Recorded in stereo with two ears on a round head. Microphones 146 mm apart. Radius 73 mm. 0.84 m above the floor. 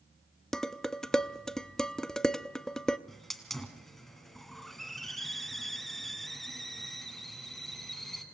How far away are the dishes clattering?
About 0.5 m.